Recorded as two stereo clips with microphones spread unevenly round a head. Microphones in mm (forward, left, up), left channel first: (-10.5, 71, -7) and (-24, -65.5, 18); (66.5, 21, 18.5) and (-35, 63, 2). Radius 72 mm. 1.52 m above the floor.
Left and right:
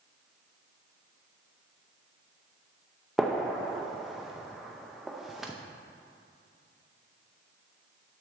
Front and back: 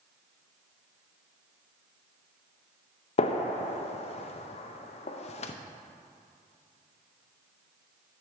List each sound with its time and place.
3.2 s a gunshot: 10° right, 0.5 m